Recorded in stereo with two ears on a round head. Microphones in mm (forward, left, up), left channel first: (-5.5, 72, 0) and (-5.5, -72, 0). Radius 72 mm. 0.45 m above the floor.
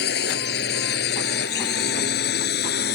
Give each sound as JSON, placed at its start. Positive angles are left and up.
{"t": 0.0, "sound": "a drone", "side_deg": 70}